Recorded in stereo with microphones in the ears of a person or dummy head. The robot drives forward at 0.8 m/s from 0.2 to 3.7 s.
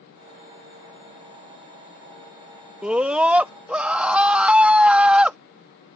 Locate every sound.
2.8 s a scream: 10° right (ahead or behind); by 5.4 s 5° right (ahead or behind)